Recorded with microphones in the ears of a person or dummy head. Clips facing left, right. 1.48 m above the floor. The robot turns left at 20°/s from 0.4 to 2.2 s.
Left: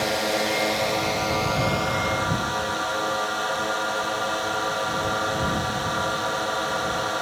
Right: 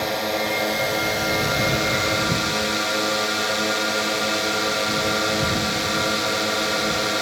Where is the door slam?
I don't hear a door slam.